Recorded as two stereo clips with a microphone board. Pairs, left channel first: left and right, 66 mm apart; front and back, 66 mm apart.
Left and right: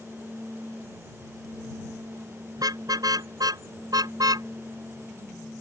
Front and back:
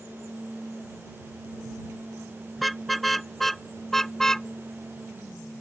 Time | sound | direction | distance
2.6 | a car horn | 90° right | ?